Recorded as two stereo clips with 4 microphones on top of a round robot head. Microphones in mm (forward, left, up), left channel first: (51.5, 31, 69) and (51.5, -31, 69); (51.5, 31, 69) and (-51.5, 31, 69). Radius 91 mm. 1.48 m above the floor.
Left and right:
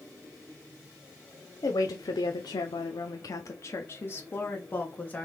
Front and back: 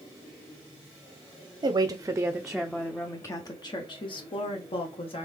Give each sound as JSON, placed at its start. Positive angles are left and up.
{"t": 1.6, "sound": "a woman speaking", "azimuth_deg": 130, "distance_m": 0.7}